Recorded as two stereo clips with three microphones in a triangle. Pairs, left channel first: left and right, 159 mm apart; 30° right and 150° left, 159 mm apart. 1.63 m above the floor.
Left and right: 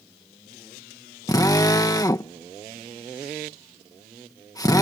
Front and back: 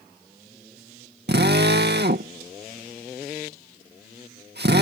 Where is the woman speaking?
I don't hear a woman speaking.